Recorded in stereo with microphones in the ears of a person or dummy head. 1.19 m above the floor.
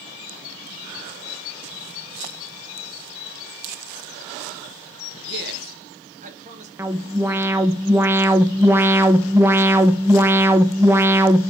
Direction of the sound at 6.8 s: 15° right (ahead or behind).